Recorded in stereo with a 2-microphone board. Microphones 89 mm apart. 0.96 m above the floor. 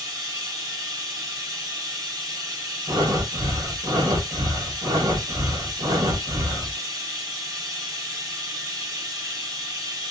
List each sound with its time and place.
0.0 s running water: 40° right (ahead or behind), 1.1 m
2.9 s breathing: 45° right (ahead or behind), 0.8 m